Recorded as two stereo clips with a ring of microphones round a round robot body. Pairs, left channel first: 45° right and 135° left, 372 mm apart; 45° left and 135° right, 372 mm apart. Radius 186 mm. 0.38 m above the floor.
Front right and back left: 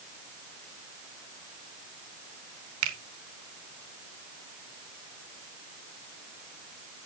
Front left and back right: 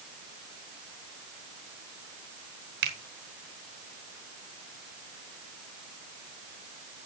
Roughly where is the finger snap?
Behind.